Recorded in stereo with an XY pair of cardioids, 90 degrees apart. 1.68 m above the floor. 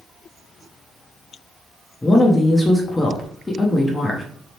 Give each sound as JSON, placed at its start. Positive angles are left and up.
{"t": 2.0, "sound": "a woman speaking", "azimuth_deg": 20, "distance_m": 0.7}